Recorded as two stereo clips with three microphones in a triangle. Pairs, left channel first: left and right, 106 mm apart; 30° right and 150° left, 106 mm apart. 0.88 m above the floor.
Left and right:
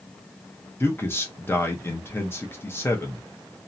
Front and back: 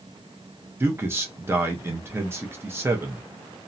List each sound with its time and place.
0.8 s a man speaking: 115° left, 0.7 m